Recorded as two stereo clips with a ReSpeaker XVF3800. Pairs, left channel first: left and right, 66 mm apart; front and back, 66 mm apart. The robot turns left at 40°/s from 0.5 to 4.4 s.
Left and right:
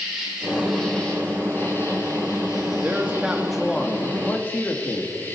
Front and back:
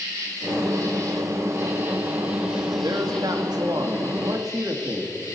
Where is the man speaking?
150° right, 1.6 m; by 5.1 s 145° left, 1.6 m.